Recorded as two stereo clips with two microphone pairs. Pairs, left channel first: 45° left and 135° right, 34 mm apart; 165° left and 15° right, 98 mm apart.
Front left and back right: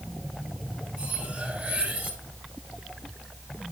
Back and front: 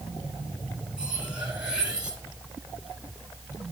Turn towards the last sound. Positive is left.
turn(degrees=-100)